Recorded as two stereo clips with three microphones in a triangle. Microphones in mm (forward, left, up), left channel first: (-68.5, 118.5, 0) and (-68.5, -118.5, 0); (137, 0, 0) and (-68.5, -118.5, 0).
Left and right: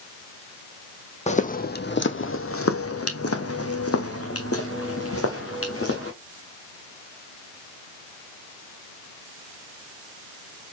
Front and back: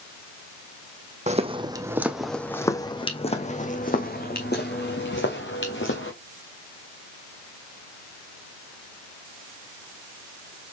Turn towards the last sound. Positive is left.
turn(degrees=65)